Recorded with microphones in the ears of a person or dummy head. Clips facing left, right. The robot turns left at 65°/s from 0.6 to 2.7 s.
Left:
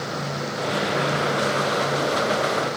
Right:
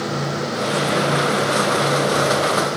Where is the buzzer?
I don't hear a buzzer.